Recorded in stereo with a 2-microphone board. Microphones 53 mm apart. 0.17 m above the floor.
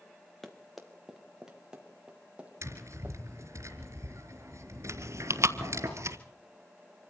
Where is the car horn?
No car horn in this recording.